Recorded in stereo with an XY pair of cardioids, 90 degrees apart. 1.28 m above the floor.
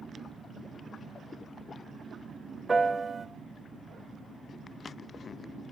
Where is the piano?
30° right, 1.0 m.